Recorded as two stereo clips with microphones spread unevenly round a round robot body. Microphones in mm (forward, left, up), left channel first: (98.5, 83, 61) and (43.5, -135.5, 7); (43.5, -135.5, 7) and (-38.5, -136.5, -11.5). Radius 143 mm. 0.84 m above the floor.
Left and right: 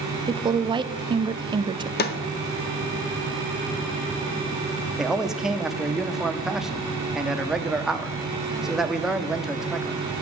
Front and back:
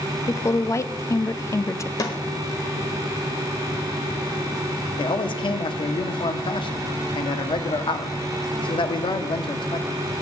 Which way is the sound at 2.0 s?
45° left.